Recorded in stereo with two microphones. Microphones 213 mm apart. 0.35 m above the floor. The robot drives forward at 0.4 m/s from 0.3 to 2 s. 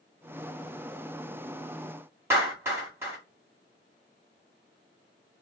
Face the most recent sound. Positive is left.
turn(degrees=-10)  # may be behind; listen again after turning